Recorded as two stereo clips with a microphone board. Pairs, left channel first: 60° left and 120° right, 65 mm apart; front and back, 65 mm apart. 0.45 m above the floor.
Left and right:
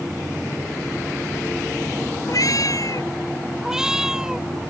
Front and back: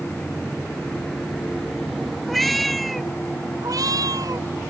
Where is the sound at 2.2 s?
90° left.